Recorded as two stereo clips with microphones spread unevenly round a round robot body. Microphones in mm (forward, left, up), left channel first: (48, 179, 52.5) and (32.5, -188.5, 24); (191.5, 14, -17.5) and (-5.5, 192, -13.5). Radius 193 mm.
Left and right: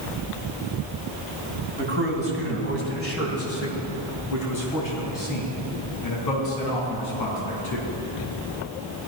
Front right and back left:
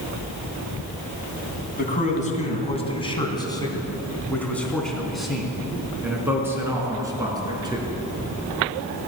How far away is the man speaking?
About 3 m.